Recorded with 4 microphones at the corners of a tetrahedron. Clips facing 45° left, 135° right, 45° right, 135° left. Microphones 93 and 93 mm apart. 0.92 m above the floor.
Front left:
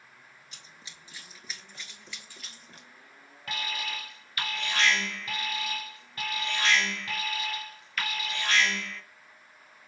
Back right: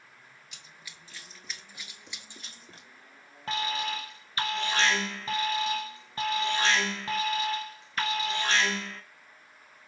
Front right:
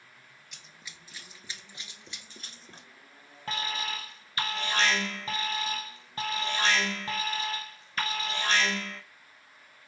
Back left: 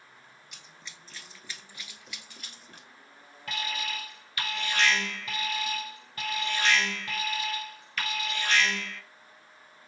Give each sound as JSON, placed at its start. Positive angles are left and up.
{"t": 0.5, "sound": "running footsteps", "azimuth_deg": 45, "distance_m": 1.1}
{"t": 3.5, "sound": "an alarm", "azimuth_deg": -90, "distance_m": 0.7}